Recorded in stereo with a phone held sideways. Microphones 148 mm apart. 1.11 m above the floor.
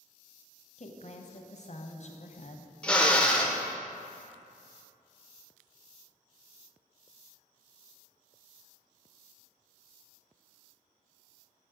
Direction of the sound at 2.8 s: 5° left (ahead or behind).